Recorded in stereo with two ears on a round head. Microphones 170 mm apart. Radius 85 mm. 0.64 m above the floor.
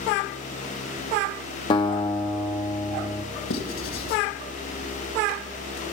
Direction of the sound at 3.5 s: 85° left.